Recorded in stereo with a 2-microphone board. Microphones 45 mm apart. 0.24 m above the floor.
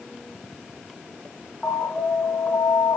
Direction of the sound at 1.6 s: 30° left (ahead or behind).